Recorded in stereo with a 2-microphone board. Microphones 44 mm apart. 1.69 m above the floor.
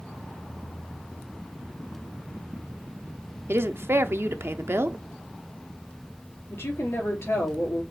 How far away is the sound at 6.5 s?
About 4 m.